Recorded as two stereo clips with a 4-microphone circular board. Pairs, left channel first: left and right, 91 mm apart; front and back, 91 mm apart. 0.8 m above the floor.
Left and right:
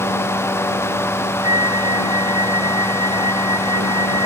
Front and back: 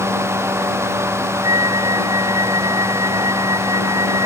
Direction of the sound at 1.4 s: 135° right.